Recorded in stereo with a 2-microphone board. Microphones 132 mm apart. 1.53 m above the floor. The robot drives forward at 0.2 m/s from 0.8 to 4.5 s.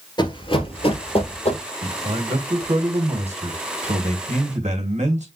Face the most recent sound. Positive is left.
turn(degrees=-70)  # may be behind; listen again after turning